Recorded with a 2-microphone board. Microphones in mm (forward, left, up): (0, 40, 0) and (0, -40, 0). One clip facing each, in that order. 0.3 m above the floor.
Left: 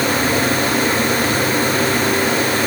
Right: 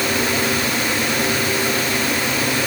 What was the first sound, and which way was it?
Only background noise.